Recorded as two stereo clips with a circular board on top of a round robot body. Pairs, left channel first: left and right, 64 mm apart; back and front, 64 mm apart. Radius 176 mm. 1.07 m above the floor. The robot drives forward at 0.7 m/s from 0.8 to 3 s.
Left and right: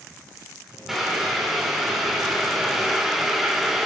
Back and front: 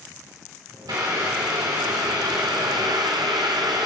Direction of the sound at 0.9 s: Straight ahead.